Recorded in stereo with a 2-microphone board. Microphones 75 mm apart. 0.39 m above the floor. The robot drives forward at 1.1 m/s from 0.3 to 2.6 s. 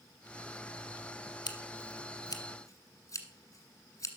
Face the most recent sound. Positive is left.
turn(degrees=50)  # may be behind; listen again after turning